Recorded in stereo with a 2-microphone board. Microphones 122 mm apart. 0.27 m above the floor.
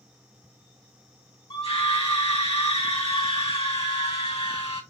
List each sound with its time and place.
1.5 s a scream: 50° left (ahead or behind), 1.9 m